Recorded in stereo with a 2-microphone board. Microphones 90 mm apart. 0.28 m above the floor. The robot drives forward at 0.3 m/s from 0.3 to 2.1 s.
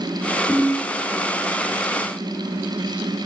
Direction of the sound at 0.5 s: 20° left (ahead or behind).